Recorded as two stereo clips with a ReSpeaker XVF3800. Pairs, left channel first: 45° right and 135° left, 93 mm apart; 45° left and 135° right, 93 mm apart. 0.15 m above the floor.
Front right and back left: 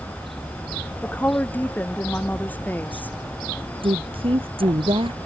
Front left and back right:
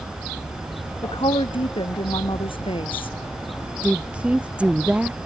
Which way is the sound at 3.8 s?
150° left.